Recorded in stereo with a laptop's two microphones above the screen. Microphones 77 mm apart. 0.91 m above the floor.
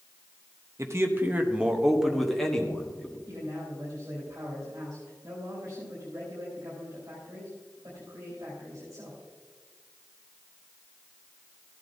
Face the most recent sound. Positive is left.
turn(degrees=-45)  # may be behind; listen again after turning